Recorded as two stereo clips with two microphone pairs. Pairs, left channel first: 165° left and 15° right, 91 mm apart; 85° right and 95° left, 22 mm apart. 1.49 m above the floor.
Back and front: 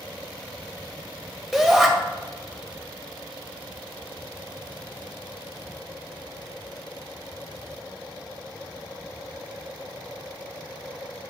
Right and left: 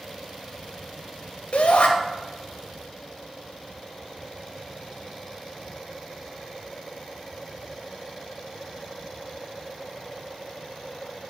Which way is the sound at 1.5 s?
105° right.